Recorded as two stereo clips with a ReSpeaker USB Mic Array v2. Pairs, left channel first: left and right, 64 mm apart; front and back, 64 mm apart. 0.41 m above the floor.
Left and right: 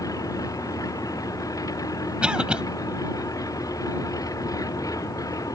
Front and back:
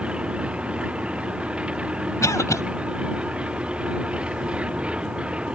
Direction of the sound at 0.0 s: 105° left.